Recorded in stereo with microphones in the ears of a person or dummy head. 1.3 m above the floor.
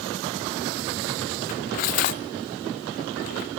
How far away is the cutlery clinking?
About 0.6 m.